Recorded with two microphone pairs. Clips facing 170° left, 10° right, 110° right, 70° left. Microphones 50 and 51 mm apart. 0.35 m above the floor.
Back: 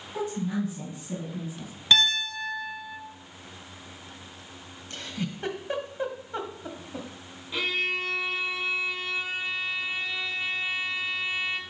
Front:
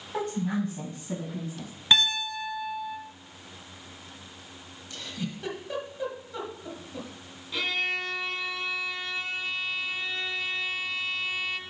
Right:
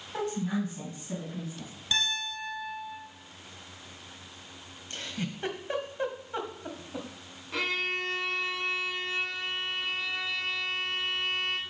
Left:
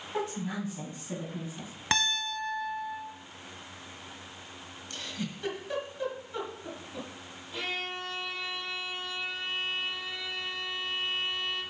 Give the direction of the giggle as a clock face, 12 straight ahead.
5 o'clock.